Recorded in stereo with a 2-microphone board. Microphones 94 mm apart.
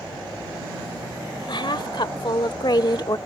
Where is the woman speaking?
60° left (ahead or behind); by 3.2 s 45° left (ahead or behind).